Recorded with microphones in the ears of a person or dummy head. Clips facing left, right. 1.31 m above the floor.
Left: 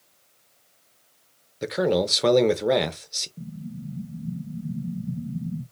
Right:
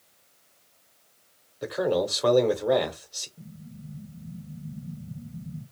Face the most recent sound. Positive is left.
turn(degrees=75)  # may be behind; listen again after turning